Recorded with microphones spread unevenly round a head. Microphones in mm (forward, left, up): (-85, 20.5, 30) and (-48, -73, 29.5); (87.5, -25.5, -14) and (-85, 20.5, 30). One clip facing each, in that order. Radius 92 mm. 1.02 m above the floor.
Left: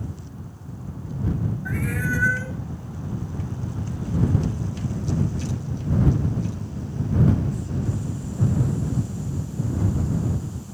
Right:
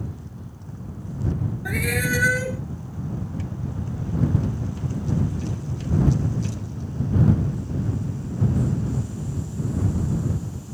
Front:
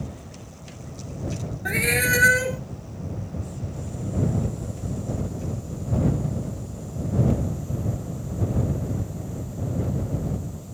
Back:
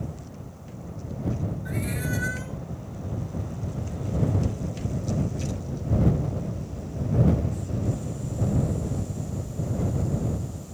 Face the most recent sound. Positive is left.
turn(degrees=-25)